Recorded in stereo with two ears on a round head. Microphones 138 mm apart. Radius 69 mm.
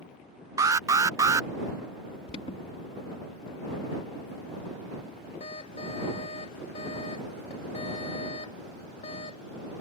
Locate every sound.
0.6 s an alarm: 20° right (ahead or behind)
2.3 s an alarm: 45° left (ahead or behind)